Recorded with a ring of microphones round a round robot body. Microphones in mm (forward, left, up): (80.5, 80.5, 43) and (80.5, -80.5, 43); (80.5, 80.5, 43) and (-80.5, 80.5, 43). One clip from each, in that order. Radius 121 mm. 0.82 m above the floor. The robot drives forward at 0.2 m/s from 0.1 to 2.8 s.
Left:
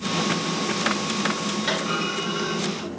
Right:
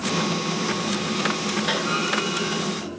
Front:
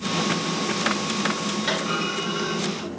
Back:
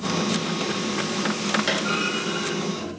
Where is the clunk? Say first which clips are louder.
Right 2 dB, back 1 dB; 130° left, 1.5 m; by 3.0 s 140° left, 1.7 m.